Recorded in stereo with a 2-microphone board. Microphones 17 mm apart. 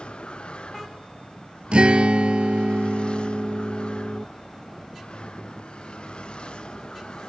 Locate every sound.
0.0 s a vehicle: 80° left; by 7.3 s 65° left (ahead or behind)
1.7 s a guitar: 80° right